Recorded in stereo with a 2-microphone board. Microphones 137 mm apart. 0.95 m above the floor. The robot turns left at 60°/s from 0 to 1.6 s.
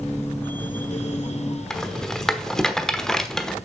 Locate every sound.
1.7 s a rattle: 5° left (ahead or behind), 0.9 m